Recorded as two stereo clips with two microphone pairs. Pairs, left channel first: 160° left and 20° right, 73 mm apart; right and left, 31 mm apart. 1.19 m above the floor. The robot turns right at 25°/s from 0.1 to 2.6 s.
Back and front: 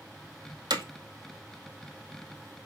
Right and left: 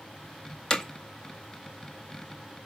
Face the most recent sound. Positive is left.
turn(degrees=20)